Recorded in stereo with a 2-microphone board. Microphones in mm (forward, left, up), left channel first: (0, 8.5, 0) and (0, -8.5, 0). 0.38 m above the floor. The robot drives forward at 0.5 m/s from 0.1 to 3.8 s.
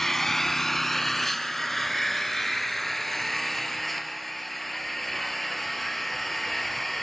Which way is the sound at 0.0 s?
20° left (ahead or behind).